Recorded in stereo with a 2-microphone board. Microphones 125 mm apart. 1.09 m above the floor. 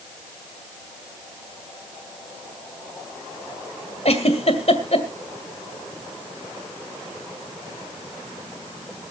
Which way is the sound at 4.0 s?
60° left (ahead or behind).